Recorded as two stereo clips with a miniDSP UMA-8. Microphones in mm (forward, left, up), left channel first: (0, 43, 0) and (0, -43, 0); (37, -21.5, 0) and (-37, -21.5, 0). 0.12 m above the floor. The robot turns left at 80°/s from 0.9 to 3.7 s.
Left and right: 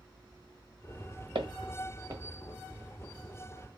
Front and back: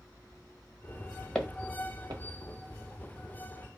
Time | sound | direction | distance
1.4 | footsteps | 80° right | 1.4 m